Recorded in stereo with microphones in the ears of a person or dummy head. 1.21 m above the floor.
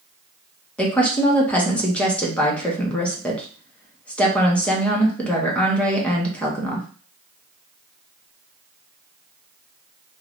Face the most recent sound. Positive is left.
turn(degrees=10)  # may be behind; listen again after turning